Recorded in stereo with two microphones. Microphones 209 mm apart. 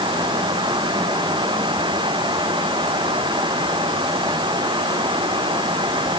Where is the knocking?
I don't hear knocking.